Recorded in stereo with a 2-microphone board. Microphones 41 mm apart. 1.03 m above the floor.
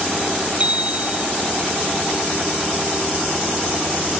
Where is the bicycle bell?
35° right (ahead or behind).